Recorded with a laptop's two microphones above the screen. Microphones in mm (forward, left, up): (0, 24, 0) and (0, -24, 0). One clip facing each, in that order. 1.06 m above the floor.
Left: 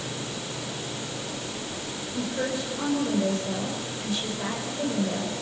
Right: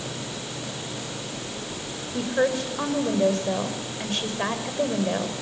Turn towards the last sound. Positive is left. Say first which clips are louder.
# right 6 dB
turn(degrees=-60)  # may be behind; listen again after turning